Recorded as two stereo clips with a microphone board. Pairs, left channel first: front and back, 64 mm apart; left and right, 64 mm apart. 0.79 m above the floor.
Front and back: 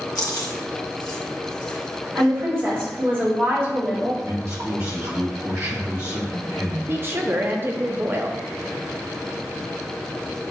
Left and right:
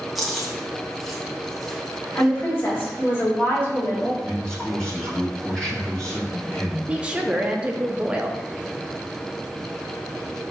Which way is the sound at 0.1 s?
Straight ahead.